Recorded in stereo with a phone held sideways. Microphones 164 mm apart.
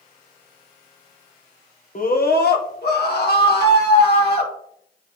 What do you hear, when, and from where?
1.9 s a scream: 55° left (ahead or behind), 0.9 m; by 4.5 s 70° left (ahead or behind), 3 m